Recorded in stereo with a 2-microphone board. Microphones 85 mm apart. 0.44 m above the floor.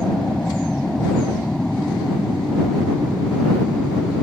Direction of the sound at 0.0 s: 10° left (ahead or behind).